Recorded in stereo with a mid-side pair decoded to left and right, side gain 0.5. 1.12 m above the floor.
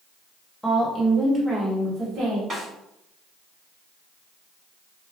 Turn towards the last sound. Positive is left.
turn(degrees=-40)